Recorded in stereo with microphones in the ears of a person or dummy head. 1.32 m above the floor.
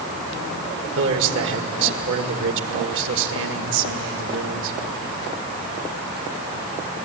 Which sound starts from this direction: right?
A man speaking, at 1.0 s.